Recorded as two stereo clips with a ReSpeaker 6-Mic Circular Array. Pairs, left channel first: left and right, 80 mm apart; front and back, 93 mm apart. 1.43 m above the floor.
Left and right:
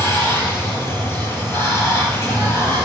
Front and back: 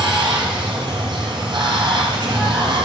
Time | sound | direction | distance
0.0 | running water | 145° left | 4 m